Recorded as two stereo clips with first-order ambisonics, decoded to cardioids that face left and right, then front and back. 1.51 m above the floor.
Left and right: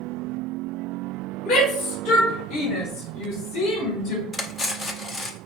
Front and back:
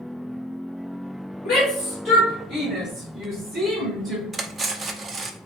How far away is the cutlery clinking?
About 0.5 m.